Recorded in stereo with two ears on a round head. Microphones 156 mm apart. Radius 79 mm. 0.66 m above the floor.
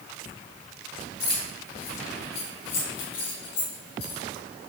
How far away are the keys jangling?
About 3 m.